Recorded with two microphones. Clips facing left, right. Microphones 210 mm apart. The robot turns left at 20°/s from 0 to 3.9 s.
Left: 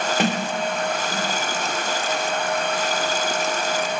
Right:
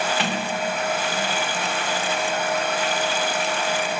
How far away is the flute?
No flute in this recording.